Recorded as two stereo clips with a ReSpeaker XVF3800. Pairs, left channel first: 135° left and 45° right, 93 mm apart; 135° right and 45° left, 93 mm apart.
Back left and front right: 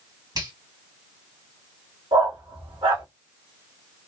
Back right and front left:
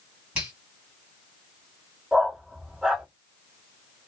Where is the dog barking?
40° right, 1.5 m.